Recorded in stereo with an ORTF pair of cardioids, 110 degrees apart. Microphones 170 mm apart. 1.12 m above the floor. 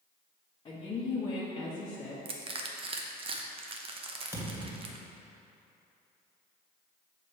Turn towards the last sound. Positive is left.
turn(degrees=-15)